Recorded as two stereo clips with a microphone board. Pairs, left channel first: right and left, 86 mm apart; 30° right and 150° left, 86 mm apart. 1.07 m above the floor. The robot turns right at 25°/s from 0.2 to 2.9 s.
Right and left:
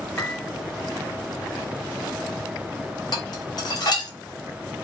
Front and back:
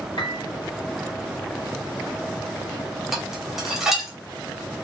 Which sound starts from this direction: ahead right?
A piano, at 0.2 s.